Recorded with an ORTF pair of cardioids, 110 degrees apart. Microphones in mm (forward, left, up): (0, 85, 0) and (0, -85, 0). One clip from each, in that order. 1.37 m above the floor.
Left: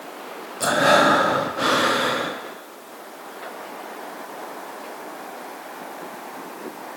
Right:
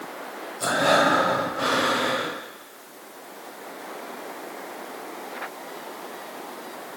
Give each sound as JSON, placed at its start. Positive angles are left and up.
{"t": 0.6, "sound": "breathing", "azimuth_deg": 15, "distance_m": 0.5}